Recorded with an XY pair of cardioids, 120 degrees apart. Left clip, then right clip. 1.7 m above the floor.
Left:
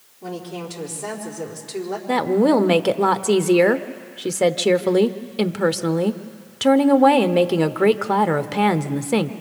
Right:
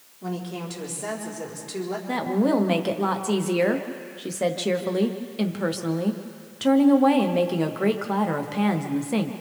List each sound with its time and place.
0.2 s a woman speaking: straight ahead, 4.5 m
2.1 s a woman speaking: 40° left, 0.9 m